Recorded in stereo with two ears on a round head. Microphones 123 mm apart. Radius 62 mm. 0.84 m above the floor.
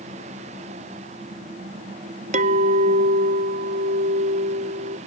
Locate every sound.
2.3 s a clink: 50° right (ahead or behind)